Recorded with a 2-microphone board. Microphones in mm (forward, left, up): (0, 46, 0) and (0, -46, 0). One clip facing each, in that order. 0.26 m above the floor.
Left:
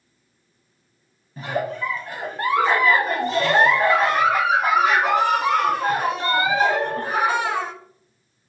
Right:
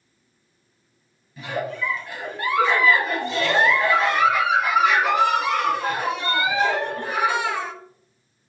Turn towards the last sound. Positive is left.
turn(degrees=40)  # may be behind; listen again after turning